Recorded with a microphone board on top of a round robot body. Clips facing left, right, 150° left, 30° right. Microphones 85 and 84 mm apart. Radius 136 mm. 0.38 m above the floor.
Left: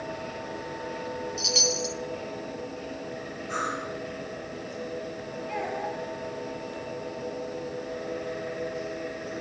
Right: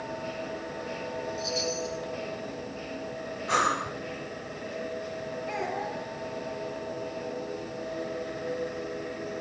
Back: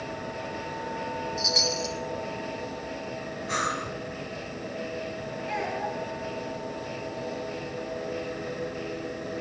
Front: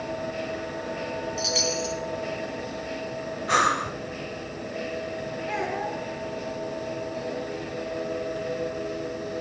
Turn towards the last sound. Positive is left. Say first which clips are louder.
# left 2 dB, front 1 dB
turn(degrees=-90)